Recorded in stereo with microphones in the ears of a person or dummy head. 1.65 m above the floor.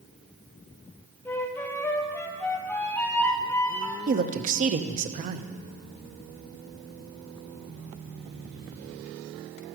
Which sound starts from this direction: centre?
A flute, at 1.2 s.